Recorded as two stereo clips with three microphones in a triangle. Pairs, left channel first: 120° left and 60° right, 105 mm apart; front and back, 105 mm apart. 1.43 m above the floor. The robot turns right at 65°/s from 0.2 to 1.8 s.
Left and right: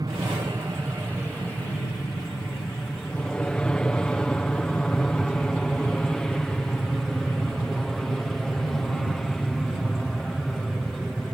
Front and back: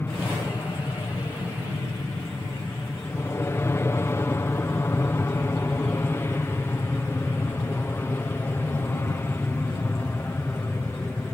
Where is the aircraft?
55° right; by 11.3 s 30° left.